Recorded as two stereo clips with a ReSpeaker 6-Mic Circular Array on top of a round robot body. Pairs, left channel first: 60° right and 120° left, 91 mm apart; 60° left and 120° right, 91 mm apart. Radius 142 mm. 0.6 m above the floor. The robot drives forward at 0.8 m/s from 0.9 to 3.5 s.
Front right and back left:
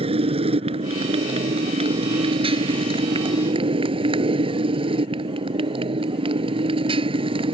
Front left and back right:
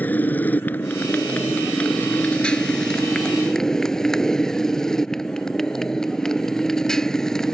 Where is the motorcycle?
130° left; by 7.5 s 145° left.